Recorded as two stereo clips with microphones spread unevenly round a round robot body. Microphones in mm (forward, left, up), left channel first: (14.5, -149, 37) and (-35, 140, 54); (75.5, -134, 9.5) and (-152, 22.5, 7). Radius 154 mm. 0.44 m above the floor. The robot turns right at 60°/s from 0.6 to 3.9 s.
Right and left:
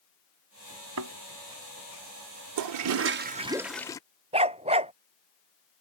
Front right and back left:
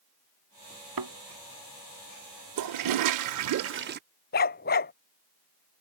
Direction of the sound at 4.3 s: 30° left.